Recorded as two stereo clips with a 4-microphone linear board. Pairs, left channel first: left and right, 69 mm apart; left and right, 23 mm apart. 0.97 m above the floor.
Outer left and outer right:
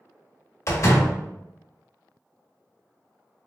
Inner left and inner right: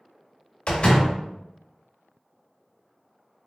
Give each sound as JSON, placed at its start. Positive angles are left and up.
{"t": 0.7, "sound": "a door slam", "side_deg": 45, "distance_m": 1.0}